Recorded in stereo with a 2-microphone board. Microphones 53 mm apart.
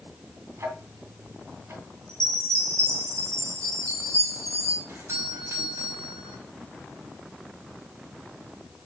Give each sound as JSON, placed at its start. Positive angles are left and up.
{"t": 0.6, "sound": "ticking", "side_deg": -55, "distance_m": 1.9}
{"t": 2.1, "sound": "a chime", "side_deg": -80, "distance_m": 4.0}
{"t": 4.9, "sound": "a doorbell", "side_deg": -55, "distance_m": 5.0}